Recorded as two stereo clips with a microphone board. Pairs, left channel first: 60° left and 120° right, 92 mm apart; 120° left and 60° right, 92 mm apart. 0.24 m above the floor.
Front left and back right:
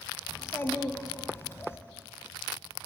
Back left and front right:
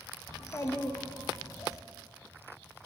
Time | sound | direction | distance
0.3 | a child speaking | 105° left | 0.7 m